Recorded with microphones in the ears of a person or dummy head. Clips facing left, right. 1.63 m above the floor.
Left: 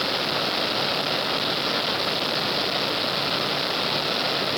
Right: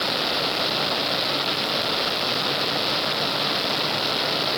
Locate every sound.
Only background noise.